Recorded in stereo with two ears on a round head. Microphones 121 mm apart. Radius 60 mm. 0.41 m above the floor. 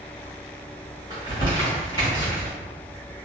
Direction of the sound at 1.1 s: 35° left (ahead or behind).